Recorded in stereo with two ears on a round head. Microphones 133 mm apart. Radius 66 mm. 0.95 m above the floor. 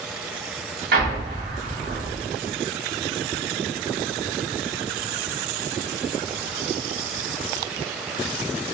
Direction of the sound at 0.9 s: 65° right (ahead or behind).